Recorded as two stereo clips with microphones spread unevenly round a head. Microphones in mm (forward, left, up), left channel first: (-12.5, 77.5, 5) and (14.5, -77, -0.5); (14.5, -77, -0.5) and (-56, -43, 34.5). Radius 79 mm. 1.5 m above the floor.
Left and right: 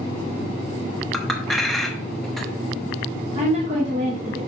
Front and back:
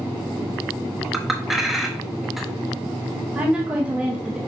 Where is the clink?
Straight behind, 0.9 m.